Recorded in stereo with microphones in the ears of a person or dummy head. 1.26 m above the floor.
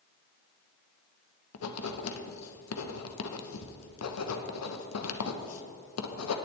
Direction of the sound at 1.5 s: 80° left.